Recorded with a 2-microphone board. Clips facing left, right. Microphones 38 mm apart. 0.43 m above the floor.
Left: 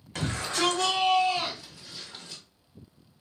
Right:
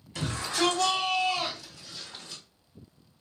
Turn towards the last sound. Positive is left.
turn(degrees=0)  # may be behind; listen again after turning